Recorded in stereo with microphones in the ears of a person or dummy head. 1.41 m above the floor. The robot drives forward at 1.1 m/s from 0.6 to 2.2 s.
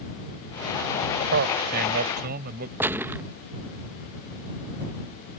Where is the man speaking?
50° right (ahead or behind); by 2.7 s 45° right (ahead or behind).